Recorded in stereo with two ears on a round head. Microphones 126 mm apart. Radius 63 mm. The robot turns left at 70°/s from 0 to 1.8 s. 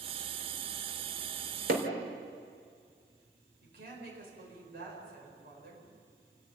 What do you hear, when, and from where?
1.7 s hammering: 75° right (ahead or behind), 3.5 m
3.6 s a woman speaking: 75° right (ahead or behind), 8 m